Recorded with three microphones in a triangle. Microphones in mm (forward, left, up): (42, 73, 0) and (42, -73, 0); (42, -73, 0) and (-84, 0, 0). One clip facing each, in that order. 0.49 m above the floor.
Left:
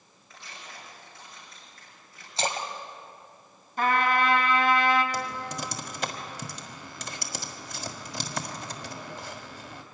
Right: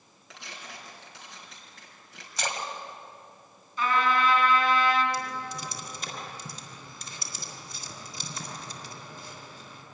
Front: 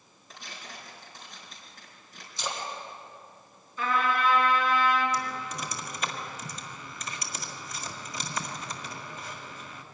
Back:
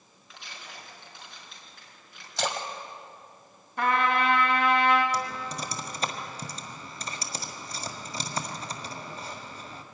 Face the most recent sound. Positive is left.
turn(degrees=95)